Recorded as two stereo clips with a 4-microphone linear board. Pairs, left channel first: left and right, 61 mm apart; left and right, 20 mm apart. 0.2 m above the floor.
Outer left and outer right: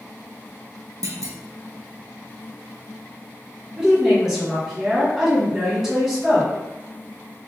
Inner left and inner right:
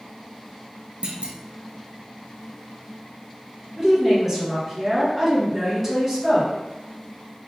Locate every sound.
1.0 s a clunk: 70° right (ahead or behind), 0.6 m
3.8 s a woman speaking: 10° right (ahead or behind), 1.9 m